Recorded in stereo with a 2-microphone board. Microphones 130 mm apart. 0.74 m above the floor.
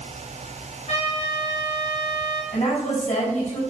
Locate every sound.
0.9 s a trumpet: 65° left (ahead or behind), 4.5 m
2.5 s a woman speaking: 60° left (ahead or behind), 5.5 m